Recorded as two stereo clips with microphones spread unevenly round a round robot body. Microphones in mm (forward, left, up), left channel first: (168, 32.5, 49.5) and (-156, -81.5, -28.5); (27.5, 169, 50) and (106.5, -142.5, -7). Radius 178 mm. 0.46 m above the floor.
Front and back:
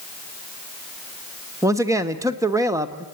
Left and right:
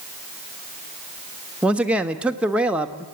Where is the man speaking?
135° right, 1.2 m.